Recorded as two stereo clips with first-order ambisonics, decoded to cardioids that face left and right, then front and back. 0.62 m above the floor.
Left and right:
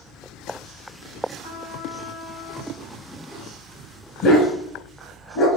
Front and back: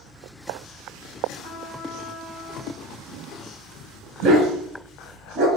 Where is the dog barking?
145° left, 2.5 m.